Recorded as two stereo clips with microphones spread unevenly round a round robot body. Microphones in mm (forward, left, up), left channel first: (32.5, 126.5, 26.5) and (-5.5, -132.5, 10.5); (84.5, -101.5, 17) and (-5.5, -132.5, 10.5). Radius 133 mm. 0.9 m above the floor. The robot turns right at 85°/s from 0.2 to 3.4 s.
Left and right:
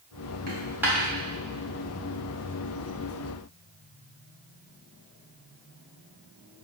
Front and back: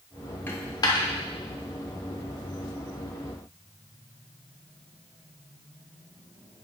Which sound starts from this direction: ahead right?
A dropped coin, at 0.5 s.